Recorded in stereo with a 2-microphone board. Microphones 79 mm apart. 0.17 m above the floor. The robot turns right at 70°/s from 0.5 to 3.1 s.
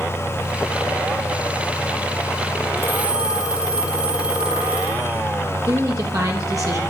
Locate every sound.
2.8 s a phone ringing: 35° right (ahead or behind), 3 m; by 5.2 s 10° right (ahead or behind), 3 m
5.6 s a woman speaking: 50° right (ahead or behind), 5 m